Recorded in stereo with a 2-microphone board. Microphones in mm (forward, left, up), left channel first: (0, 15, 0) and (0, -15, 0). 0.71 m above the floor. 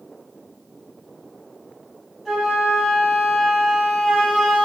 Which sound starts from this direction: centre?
A flute, at 2.2 s.